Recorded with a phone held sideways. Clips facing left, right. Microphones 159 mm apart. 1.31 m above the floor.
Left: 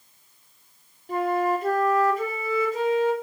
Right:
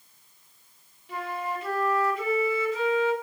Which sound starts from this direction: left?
A flute, at 1.1 s.